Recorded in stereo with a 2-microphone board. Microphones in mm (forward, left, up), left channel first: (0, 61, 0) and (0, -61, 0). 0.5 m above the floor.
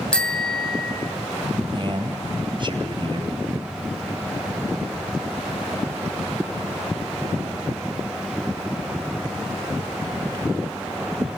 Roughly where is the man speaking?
Right.